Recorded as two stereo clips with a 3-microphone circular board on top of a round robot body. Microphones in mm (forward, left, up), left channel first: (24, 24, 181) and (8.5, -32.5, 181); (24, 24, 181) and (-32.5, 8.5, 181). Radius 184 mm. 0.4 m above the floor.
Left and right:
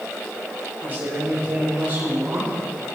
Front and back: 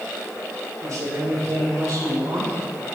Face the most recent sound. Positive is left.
turn(degrees=-160)